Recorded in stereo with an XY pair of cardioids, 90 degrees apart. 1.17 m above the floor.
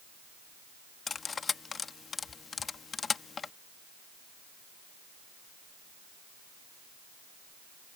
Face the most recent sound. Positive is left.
turn(degrees=45)